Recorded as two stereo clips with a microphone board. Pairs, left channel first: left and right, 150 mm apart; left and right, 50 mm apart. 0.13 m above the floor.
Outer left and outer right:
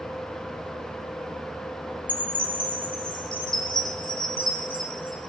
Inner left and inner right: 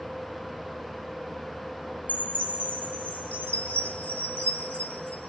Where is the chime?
35° left (ahead or behind), 0.7 m.